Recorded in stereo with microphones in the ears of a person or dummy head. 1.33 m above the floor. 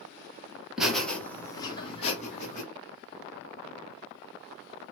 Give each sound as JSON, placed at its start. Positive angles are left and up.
{"t": 0.8, "sound": "laughter", "side_deg": 0, "distance_m": 1.4}